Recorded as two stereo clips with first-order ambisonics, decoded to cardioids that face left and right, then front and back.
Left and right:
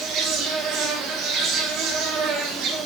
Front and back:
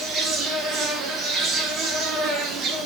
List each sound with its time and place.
0.0 s an insect: 125° right, 1.8 m